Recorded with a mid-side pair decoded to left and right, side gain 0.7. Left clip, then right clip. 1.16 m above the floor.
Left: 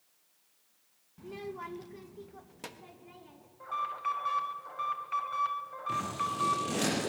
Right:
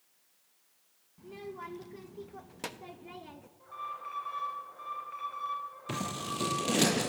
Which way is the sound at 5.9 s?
35° right.